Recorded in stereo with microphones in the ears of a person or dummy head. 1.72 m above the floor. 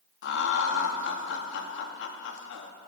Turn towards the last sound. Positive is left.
turn(degrees=65)  # may be behind; listen again after turning